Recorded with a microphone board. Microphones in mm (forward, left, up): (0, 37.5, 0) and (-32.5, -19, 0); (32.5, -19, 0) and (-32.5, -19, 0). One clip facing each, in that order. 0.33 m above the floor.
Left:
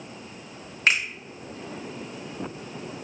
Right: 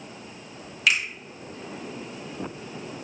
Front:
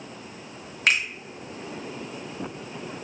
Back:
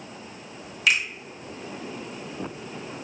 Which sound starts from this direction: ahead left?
A finger snap, at 0.9 s.